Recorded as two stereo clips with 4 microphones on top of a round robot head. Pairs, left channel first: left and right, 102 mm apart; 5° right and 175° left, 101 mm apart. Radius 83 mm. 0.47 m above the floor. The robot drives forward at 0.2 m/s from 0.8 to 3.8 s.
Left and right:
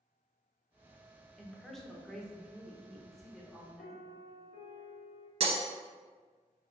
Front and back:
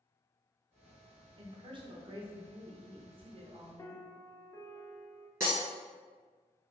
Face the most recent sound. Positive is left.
turn(degrees=-115)